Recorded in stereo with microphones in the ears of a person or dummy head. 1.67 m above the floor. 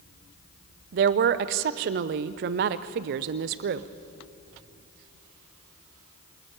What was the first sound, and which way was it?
A woman speaking, 45° right (ahead or behind).